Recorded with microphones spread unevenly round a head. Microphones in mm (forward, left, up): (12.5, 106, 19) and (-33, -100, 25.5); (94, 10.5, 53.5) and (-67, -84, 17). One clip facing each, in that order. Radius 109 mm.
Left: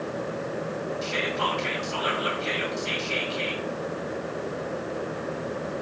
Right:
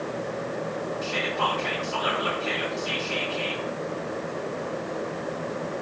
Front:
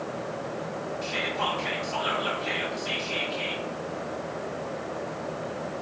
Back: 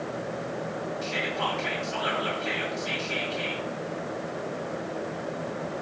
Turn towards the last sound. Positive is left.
turn(degrees=135)